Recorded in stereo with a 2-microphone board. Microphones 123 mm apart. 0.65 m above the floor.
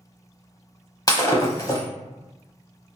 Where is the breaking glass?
30° left (ahead or behind), 0.6 m.